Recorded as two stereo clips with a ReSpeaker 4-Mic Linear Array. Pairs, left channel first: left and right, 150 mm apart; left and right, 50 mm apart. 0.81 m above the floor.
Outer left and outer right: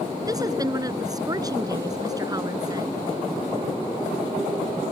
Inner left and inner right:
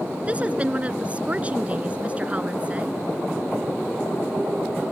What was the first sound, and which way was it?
A woman speaking, 25° right (ahead or behind).